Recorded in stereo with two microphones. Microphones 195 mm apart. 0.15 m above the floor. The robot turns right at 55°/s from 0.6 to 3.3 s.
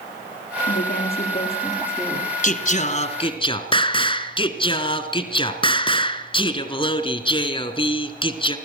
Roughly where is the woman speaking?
Left.